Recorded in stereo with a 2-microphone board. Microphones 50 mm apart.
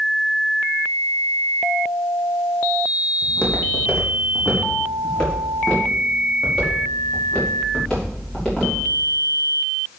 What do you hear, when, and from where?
3.2 s footsteps: 20° left (ahead or behind), 3.5 m; by 8.7 s 15° left (ahead or behind), 6.5 m